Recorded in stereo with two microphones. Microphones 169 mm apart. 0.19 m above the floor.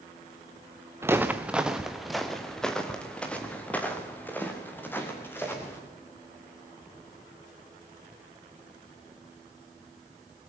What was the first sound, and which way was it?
Footsteps, 15° right (ahead or behind).